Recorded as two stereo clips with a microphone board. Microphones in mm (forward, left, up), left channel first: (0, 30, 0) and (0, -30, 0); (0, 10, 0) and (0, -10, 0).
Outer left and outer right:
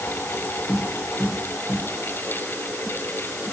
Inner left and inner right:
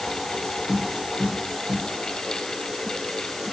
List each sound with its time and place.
0.7 s tapping: 20° right (ahead or behind), 1.6 m